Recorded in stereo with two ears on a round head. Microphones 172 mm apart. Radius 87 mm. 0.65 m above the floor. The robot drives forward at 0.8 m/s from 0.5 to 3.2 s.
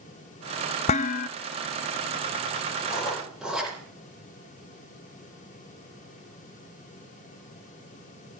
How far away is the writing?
About 8 m.